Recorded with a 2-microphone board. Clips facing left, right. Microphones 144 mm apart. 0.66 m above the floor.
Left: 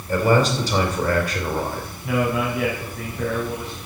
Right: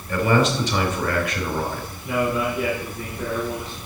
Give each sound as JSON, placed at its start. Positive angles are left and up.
{"t": 0.1, "sound": "a man speaking", "side_deg": 35, "distance_m": 3.0}
{"t": 2.0, "sound": "a man speaking", "side_deg": 70, "distance_m": 4.5}